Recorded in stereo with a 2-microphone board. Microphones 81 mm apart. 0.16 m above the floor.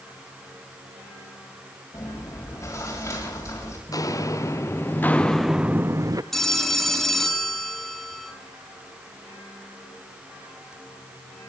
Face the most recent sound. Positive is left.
turn(degrees=5)  # may be behind; listen again after turning